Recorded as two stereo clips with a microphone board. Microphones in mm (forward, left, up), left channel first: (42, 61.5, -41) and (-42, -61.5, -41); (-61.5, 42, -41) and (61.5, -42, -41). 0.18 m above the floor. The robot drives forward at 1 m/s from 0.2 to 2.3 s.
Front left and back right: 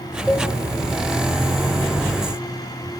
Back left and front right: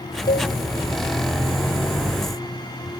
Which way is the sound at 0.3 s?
150° left.